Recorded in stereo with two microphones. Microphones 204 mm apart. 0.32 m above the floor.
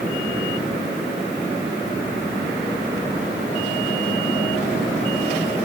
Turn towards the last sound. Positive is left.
No sound to turn to.